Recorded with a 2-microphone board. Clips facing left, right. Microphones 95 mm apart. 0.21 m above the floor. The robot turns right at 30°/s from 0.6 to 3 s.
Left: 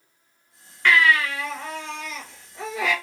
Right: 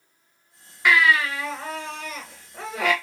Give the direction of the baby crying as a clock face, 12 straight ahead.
6 o'clock.